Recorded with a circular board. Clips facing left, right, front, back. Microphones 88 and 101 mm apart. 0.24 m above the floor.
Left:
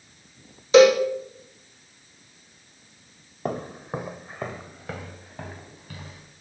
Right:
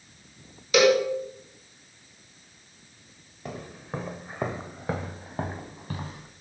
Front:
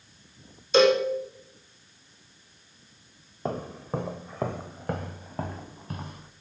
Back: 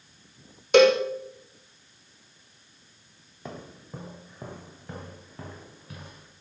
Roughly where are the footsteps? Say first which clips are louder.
Left 7 dB, front 9 dB; ahead left.